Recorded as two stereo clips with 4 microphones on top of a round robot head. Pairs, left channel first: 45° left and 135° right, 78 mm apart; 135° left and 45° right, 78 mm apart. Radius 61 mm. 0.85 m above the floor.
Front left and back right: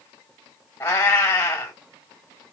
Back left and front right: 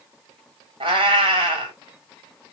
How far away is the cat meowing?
About 1.5 m.